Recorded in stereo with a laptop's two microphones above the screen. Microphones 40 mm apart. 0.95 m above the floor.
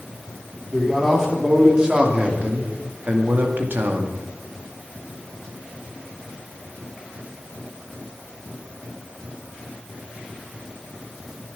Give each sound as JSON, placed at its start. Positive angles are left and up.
{"t": 0.7, "sound": "a man speaking", "side_deg": -5, "distance_m": 3.0}